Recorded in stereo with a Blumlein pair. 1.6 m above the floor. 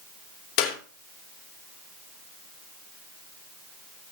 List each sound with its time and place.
0.6 s a clap: 40° left, 3 m